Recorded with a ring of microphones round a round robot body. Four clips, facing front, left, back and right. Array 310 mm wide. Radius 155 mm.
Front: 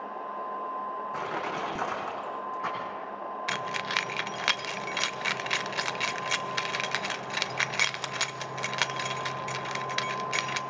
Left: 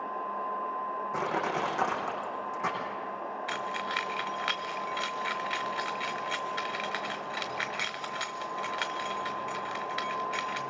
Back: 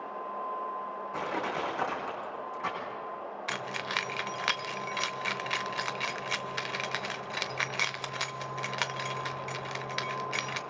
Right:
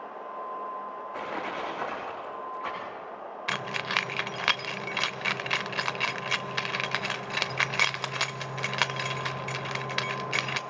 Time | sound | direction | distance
1.1 | crushing | 75° left | 6.5 m
3.5 | keys jangling | 80° right | 0.7 m